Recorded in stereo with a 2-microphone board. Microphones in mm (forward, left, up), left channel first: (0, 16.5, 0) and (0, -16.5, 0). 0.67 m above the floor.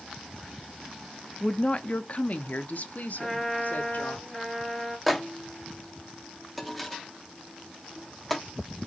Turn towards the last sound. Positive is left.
turn(degrees=5)  # may be behind; listen again after turning